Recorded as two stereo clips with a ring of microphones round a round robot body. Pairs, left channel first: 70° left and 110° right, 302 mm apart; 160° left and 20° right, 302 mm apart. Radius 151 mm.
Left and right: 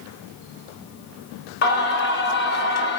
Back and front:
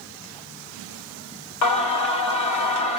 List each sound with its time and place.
1.6 s singing: 125° left, 1.9 m